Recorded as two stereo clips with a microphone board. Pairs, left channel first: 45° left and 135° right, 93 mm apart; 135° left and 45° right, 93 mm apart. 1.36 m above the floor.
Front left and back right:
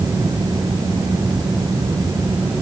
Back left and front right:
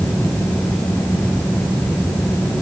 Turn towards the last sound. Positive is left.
No sound to turn to.